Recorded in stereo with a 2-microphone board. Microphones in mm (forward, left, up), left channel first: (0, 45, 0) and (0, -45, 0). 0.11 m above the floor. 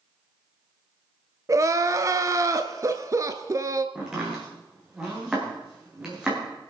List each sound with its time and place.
1.5 s crying: 35° right (ahead or behind), 0.7 m
4.0 s chopping: 10° right (ahead or behind), 5 m